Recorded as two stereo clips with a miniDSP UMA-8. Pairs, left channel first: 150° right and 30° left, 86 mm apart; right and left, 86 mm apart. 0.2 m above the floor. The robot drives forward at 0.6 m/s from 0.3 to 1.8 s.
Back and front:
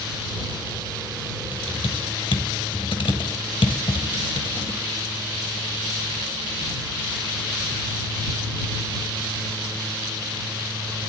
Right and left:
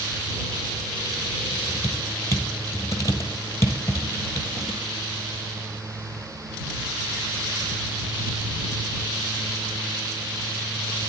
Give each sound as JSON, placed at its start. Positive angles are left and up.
{"t": 1.5, "sound": "typing on a keyboard", "azimuth_deg": -140, "distance_m": 1.6}